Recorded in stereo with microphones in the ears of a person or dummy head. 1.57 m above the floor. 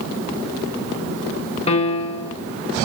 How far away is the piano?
About 0.8 m.